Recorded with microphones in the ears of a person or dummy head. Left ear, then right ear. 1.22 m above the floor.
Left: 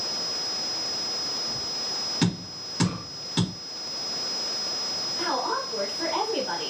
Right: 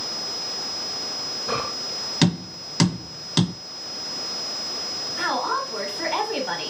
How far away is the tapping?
About 1.7 m.